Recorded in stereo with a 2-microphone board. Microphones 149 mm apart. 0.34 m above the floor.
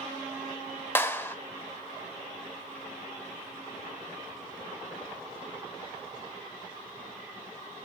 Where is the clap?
15° left (ahead or behind), 0.9 m.